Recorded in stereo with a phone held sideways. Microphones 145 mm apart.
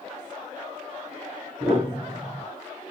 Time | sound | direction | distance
1.6 | a piano | 35° right (ahead or behind) | 2 m